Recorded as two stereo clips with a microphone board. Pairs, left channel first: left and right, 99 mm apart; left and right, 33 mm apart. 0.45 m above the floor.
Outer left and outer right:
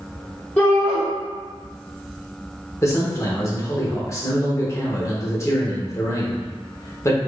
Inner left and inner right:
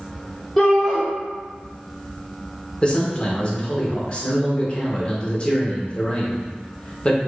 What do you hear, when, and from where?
0.6 s a shout: 10° left (ahead or behind), 0.9 m
2.8 s a man speaking: 30° left (ahead or behind), 0.9 m